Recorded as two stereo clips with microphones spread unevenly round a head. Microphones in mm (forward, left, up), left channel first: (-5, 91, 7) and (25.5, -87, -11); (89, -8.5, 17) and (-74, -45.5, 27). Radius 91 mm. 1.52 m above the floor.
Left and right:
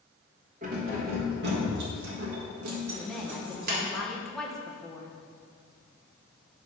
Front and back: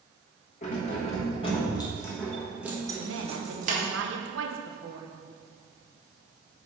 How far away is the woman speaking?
About 1.0 m.